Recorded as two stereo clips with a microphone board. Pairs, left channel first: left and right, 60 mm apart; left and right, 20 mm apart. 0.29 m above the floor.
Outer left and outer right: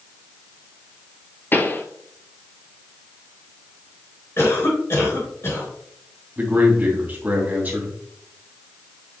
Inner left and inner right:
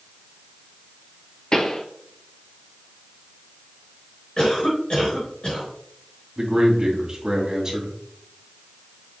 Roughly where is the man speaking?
Right.